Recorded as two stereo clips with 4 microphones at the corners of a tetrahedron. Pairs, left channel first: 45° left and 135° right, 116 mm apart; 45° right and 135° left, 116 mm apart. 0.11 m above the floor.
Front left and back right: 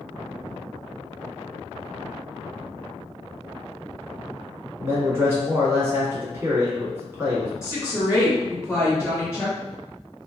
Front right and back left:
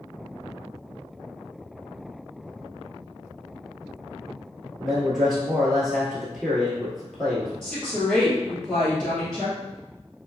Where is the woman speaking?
35° left, 1.8 m.